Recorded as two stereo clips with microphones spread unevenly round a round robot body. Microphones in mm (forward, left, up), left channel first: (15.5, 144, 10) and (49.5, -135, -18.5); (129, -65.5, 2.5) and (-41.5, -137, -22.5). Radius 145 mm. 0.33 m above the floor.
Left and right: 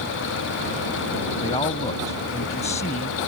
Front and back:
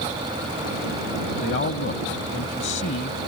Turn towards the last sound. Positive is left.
turn(degrees=30)